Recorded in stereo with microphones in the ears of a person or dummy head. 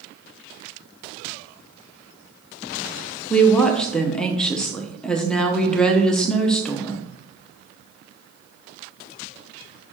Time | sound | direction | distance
3.3 | a woman speaking | 10° left (ahead or behind) | 0.9 m